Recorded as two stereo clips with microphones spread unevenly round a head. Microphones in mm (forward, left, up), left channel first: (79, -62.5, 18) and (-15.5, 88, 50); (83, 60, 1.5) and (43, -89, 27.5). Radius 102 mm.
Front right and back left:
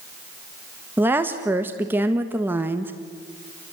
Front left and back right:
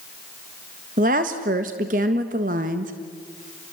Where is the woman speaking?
155° right, 1.4 m.